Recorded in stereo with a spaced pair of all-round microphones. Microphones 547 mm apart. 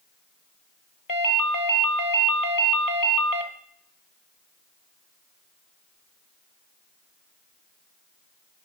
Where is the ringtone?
35° left (ahead or behind), 0.8 m.